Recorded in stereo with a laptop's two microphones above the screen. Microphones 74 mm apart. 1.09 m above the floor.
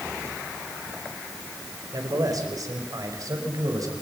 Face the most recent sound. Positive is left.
turn(degrees=-55)  # may be behind; listen again after turning